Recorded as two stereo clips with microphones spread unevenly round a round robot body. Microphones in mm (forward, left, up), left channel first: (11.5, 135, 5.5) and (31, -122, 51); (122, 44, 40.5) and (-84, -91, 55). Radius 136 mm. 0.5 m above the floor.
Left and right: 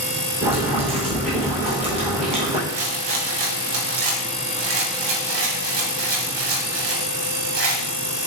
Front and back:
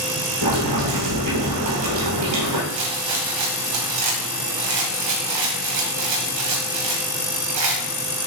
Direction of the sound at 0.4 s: 155° right.